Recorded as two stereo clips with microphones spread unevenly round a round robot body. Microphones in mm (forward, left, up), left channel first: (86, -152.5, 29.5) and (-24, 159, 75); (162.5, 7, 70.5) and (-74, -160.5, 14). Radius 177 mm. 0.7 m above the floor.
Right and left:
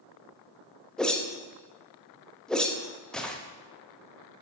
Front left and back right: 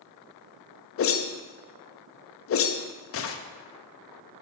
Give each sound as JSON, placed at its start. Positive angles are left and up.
{"t": 1.0, "sound": "a whoosh", "azimuth_deg": 5, "distance_m": 0.6}